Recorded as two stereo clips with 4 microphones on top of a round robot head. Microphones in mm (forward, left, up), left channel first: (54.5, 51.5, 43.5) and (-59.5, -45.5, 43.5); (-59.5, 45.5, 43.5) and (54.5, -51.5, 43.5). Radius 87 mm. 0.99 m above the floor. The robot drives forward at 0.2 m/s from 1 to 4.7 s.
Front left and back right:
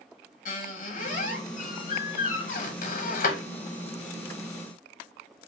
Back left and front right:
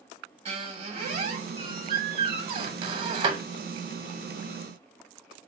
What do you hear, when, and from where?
0.5 s a squeak: 10° left, 1.3 m; by 3.4 s 15° left, 0.8 m